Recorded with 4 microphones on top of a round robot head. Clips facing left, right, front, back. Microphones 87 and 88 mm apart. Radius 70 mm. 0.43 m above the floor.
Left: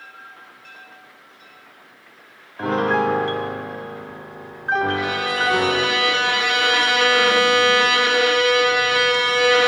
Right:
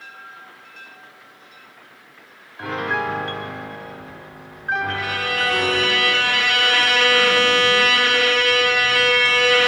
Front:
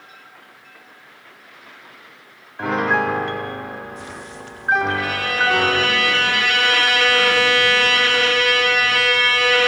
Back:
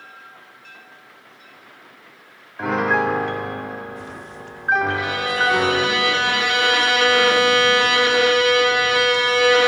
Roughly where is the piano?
Left.